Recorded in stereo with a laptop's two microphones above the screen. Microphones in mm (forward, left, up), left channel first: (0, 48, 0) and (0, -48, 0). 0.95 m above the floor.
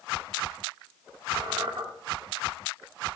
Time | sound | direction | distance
1.4 | a squeak | 60° right (ahead or behind) | 1.7 m